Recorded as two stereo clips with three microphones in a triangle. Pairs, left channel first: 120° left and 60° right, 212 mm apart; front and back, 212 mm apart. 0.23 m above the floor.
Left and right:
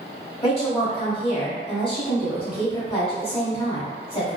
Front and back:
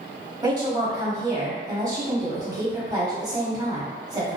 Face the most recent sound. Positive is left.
turn(degrees=135)